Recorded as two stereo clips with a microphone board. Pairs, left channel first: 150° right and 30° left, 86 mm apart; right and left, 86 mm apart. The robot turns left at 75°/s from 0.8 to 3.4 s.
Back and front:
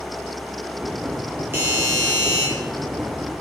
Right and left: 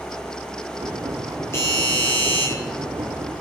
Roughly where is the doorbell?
Ahead right.